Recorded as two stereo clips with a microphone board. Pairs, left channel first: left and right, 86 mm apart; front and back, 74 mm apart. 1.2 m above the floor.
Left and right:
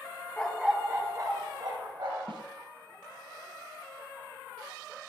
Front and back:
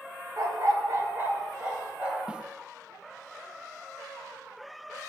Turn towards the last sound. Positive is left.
turn(degrees=-105)